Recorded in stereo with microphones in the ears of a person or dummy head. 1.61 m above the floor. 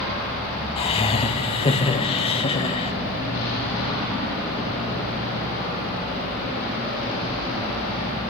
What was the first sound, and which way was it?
Laughter, 30° left (ahead or behind).